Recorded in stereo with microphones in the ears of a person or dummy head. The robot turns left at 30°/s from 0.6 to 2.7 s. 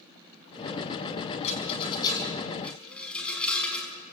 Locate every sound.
1.4 s a rattle: 45° left (ahead or behind), 4.5 m; by 3.9 s 10° left (ahead or behind), 4.5 m